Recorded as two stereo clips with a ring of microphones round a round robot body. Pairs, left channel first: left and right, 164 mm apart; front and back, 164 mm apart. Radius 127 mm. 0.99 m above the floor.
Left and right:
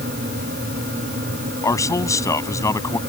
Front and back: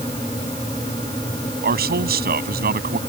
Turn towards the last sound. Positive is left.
turn(degrees=160)